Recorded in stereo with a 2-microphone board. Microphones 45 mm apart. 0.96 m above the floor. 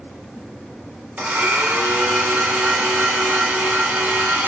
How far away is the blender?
About 2.5 m.